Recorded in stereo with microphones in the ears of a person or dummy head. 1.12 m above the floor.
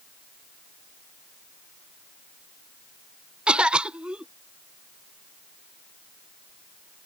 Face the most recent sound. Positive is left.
turn(degrees=-5)  # may be behind; listen again after turning